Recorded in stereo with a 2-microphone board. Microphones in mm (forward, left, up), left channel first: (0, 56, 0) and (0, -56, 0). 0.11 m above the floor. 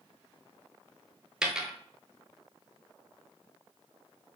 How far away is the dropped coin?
About 0.7 m.